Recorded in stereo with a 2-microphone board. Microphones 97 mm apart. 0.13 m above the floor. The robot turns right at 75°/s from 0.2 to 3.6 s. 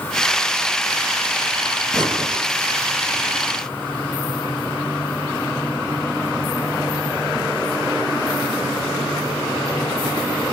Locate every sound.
1.9 s breathing: 135° right, 3.5 m; by 2.4 s 95° right, 3.5 m